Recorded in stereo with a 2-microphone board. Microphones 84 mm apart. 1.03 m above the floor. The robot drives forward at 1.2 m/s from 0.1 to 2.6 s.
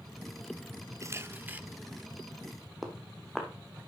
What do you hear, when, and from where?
1.0 s a camera shutter: 35° right (ahead or behind), 0.7 m; by 1.6 s 20° right (ahead or behind), 1.2 m
2.8 s footsteps: centre (ahead or behind), 2 m